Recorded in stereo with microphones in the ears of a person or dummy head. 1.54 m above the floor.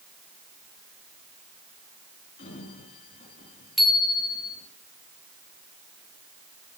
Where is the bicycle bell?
Centre (ahead or behind), 2.5 m.